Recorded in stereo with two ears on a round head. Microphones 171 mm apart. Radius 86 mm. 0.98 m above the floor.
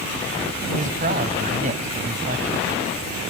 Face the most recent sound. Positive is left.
turn(degrees=-40)  # may be behind; listen again after turning